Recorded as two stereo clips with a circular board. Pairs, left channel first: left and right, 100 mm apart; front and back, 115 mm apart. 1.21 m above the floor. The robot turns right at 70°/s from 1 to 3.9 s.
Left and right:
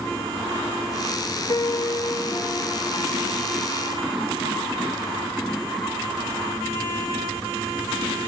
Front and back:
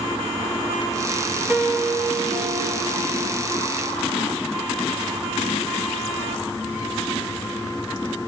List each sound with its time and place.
1.5 s a piano: 95° left, 0.7 m; by 3.7 s 105° right, 0.7 m